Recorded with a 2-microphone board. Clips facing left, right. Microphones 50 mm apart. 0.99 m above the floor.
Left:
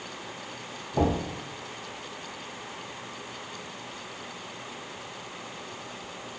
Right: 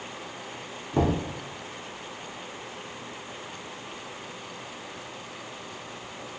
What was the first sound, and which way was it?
Knocking, 80° right.